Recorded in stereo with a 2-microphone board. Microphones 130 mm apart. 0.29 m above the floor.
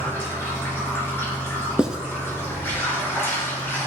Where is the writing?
5° right (ahead or behind), 0.9 m.